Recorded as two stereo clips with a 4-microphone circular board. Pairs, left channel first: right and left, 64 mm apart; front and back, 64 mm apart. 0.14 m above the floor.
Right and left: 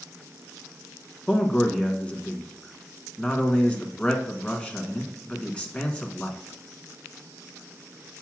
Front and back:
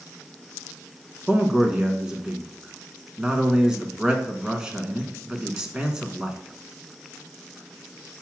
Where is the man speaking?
125° right, 1.2 m.